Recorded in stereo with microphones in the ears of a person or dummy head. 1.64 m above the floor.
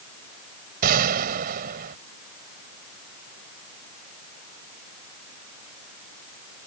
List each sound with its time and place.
0.8 s a gunshot: 55° right (ahead or behind)